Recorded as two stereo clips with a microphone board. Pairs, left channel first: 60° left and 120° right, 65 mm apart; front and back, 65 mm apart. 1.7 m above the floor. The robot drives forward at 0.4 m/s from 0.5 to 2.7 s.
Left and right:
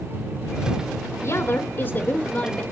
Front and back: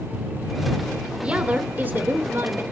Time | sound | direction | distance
1.2 | a woman speaking | 110° left | 1.0 m